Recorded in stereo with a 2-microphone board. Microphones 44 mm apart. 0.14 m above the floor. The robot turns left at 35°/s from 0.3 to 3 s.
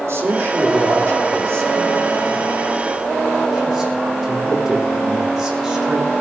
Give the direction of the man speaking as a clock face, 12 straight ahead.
3 o'clock.